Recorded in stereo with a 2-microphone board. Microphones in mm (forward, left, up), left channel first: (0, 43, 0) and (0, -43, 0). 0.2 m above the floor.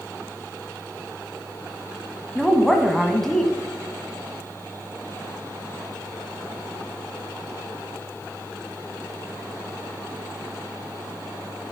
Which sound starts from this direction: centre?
A woman speaking, at 2.4 s.